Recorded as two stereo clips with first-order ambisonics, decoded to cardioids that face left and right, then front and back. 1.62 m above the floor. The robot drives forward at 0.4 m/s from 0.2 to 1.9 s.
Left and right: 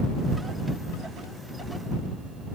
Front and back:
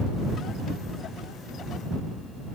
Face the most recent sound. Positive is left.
No sound to turn to.